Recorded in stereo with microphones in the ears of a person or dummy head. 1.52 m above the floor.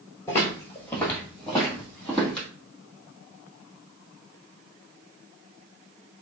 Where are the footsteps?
20° left (ahead or behind), 1.7 m; by 2.5 s 5° left (ahead or behind), 3 m.